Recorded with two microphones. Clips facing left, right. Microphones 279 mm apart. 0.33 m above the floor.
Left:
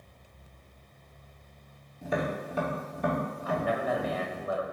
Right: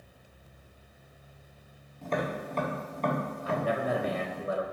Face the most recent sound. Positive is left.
turn(degrees=-30)  # may be behind; listen again after turning